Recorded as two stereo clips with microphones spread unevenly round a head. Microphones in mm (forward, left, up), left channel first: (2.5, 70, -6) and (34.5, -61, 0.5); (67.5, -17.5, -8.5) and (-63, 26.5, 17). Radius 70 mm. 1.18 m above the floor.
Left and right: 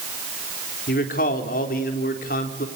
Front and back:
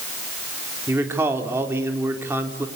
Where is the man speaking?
90° left, 3.5 m.